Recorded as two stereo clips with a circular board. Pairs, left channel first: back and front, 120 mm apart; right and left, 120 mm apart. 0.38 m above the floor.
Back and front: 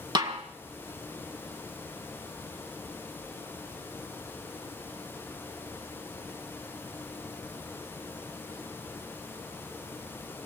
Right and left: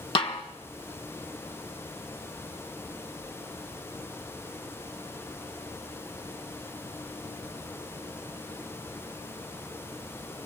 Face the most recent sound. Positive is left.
turn(degrees=-50)